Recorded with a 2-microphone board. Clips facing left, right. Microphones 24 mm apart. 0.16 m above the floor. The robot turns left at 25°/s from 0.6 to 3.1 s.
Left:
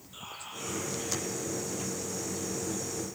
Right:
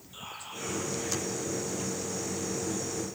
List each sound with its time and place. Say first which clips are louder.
0.1 s whispering: right 1 dB; centre (ahead or behind), 5.5 m; by 1.3 s 15° left (ahead or behind), 5.5 m